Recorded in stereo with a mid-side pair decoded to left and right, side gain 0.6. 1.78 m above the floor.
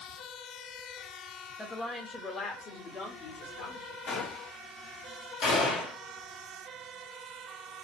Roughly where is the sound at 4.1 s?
Ahead left.